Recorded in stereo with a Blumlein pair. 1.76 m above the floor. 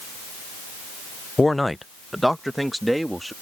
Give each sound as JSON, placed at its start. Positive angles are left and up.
{"t": 1.4, "sound": "a man speaking", "azimuth_deg": 10}